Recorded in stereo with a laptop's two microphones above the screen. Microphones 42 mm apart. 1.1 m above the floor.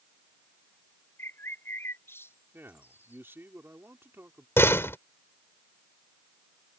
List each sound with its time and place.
1.2 s a bird: 75° left (ahead or behind)
2.5 s a man speaking: 65° right (ahead or behind)
4.6 s a door slam: 85° left